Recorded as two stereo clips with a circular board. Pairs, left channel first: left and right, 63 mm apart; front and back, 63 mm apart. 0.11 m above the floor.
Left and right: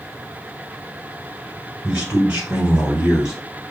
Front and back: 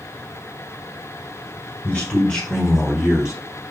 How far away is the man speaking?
About 1.2 m.